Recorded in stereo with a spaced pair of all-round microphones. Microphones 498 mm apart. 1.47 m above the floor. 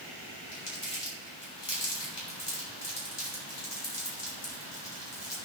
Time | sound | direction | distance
0.5 | crumpling | 80° left | 5.5 m